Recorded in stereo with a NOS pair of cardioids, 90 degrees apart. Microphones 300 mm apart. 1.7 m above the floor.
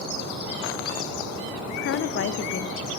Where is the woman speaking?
45° left, 0.6 m.